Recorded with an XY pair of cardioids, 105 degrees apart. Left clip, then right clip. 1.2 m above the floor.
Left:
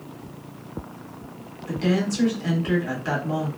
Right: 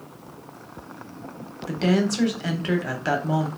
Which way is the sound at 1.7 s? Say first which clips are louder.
Right 2 dB; 50° right.